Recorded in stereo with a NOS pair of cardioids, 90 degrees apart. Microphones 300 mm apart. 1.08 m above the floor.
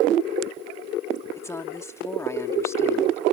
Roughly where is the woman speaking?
Ahead.